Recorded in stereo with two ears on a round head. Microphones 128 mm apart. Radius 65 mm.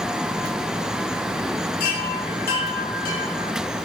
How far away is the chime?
About 4 m.